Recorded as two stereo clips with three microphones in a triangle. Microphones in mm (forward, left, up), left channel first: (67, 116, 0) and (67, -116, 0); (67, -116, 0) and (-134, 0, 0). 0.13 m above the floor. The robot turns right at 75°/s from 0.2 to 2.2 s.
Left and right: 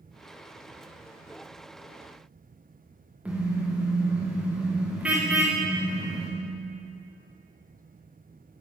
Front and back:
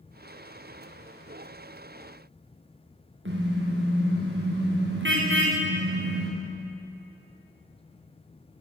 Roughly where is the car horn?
Behind.